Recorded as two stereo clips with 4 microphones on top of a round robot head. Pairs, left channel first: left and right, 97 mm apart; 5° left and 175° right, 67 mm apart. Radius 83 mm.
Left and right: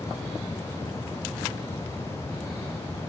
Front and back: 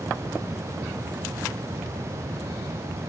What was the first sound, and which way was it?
Only background noise.